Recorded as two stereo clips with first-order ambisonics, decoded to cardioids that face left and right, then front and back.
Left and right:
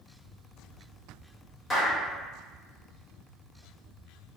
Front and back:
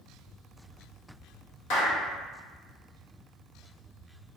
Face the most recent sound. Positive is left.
turn(degrees=15)